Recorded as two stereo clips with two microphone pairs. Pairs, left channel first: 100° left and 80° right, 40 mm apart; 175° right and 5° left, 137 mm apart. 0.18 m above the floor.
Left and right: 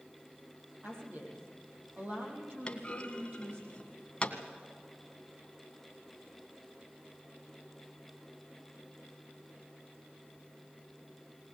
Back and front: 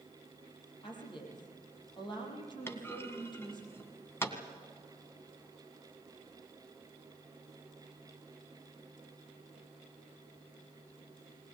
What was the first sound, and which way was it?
A woman speaking, 120° right.